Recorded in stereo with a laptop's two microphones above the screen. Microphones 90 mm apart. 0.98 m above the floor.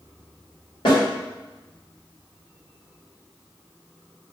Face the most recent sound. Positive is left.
turn(degrees=50)  # may be behind; listen again after turning